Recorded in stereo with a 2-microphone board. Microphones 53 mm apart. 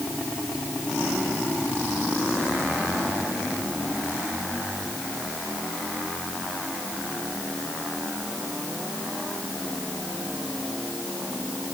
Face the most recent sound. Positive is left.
No sound to turn to.